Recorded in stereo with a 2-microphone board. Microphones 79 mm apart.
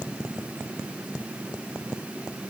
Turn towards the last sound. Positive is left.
No sound to turn to.